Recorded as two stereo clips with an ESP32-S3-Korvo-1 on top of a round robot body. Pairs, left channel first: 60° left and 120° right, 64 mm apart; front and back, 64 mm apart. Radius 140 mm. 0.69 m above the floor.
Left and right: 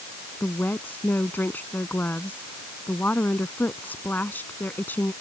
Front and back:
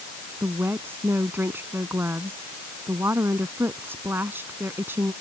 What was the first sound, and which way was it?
A woman speaking, 120° left.